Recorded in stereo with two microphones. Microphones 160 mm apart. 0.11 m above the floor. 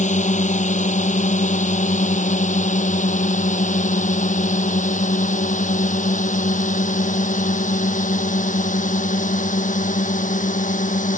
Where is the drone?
50° left (ahead or behind); by 11.2 s 55° left (ahead or behind).